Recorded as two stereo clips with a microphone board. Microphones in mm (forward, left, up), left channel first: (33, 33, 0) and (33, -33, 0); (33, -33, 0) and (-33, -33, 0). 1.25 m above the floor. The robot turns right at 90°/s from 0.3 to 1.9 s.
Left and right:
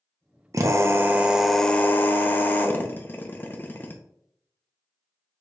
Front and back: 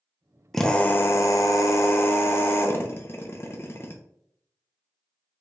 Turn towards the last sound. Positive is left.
turn(degrees=35)